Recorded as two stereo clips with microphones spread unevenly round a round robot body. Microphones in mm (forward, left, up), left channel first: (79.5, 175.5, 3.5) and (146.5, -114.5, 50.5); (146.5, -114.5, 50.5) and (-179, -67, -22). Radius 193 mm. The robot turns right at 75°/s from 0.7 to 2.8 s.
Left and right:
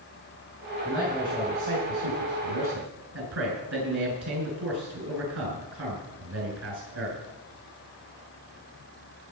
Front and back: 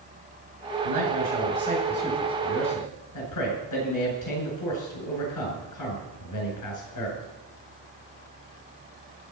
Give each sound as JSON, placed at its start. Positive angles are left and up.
{"t": 0.8, "sound": "a man speaking", "azimuth_deg": 175, "distance_m": 7.5}